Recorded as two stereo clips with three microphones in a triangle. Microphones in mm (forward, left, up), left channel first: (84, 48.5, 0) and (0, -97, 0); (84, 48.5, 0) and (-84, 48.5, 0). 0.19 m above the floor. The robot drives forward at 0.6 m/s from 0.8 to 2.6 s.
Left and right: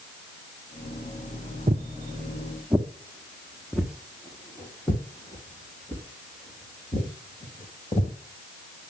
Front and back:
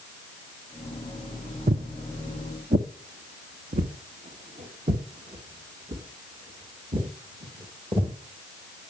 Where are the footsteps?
155° right, 0.6 m; by 8.2 s 120° left, 3.5 m.